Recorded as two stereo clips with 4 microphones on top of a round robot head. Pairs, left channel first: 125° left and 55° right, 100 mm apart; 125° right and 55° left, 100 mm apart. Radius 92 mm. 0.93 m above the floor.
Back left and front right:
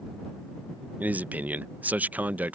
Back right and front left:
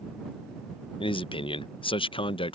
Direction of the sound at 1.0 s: 130° right.